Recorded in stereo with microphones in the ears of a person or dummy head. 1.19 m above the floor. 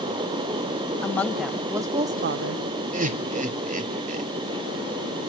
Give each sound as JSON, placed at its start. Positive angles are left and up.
{"t": 1.0, "sound": "a woman speaking", "side_deg": 5, "distance_m": 1.2}
{"t": 2.9, "sound": "laughter", "side_deg": -35, "distance_m": 0.6}